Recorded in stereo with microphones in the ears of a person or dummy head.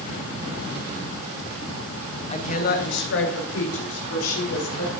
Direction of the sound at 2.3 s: 35° left (ahead or behind).